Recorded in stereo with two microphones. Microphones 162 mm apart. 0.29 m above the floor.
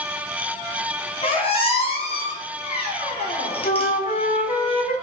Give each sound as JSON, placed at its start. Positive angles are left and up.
{"t": 1.2, "sound": "a squeak", "side_deg": 40, "distance_m": 1.4}
{"t": 3.6, "sound": "a flute", "side_deg": 60, "distance_m": 0.6}